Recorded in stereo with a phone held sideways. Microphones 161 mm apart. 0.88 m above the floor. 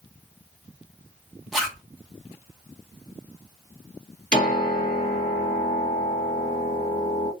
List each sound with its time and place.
1.5 s a zipper: centre (ahead or behind), 1.0 m
4.3 s a piano: 60° left (ahead or behind), 1.7 m